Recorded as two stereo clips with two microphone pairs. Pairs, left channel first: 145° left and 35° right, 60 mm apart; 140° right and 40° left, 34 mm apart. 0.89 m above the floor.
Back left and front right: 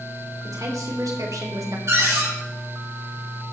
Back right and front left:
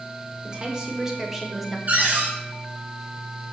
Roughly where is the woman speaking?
Ahead right.